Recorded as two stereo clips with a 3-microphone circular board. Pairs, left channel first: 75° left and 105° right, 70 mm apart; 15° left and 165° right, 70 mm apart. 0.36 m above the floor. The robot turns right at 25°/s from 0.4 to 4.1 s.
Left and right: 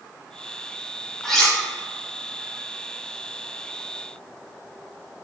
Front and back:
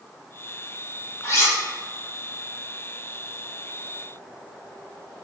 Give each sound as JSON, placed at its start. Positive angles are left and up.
{"t": 1.2, "sound": "cutlery clinking", "azimuth_deg": -10, "distance_m": 0.6}